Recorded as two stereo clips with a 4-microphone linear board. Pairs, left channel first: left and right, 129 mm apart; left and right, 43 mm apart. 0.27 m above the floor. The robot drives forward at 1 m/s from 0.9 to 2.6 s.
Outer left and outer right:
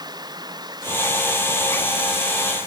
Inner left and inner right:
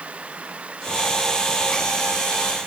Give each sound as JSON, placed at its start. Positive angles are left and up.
{"t": 0.0, "sound": "running water", "side_deg": -30}